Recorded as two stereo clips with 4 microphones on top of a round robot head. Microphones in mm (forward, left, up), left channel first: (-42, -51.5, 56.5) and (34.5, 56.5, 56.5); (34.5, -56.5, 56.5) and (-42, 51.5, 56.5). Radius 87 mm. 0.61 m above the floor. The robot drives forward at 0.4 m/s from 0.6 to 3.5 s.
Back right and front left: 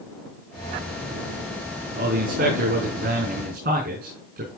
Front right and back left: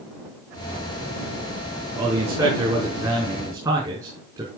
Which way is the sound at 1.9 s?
55° left.